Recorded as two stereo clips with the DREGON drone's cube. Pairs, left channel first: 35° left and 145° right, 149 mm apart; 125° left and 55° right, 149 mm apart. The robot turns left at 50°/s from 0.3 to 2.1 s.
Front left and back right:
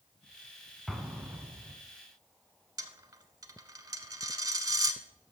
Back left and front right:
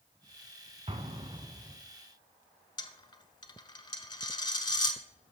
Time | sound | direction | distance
0.9 | an explosion | 55° right | 0.8 m
2.8 | a dropped coin | 165° left | 0.7 m